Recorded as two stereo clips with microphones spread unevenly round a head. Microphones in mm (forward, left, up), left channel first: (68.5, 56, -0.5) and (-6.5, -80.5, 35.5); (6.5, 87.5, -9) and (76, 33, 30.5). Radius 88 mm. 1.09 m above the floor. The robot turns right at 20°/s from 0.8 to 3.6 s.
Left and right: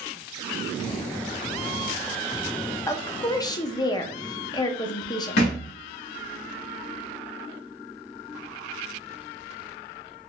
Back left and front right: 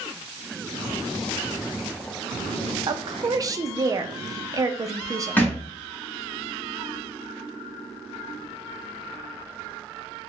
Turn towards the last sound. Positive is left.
turn(degrees=55)